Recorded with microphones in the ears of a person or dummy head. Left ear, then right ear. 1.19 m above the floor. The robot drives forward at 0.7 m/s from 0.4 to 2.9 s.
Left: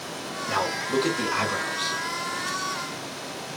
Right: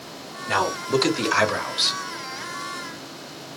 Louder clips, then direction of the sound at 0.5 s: Right 4 dB; 35° right (ahead or behind).